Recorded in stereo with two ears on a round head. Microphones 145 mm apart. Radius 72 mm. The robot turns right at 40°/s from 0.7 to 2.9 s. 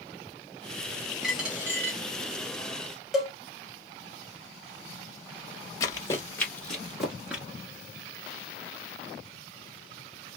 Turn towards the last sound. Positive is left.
turn(degrees=-10)  # may be behind; listen again after turning